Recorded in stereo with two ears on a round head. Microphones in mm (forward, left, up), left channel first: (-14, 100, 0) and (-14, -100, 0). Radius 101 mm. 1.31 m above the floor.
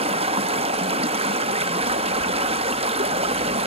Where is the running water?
25° right (ahead or behind), 0.7 m.